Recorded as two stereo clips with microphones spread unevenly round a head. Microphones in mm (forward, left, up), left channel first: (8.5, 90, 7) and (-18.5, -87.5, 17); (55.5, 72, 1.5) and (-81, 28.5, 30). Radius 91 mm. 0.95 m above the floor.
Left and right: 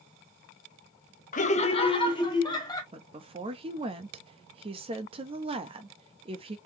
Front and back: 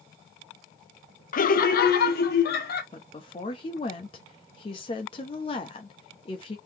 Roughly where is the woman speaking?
Ahead right.